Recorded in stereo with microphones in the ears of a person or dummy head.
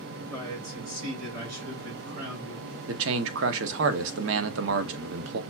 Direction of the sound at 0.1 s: 80° right.